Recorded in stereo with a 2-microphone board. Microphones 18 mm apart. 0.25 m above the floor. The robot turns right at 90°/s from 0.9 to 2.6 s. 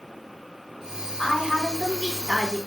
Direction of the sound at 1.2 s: 125° left.